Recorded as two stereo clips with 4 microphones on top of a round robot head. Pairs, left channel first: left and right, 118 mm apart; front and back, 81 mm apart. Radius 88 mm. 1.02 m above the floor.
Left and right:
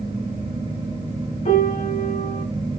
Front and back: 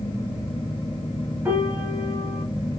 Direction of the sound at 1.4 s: 120° left.